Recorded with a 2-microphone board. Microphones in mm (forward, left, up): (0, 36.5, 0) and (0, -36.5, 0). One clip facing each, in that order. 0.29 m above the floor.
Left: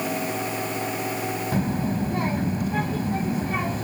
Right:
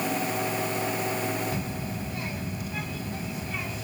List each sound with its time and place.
1.5 s a child speaking: 55° left (ahead or behind)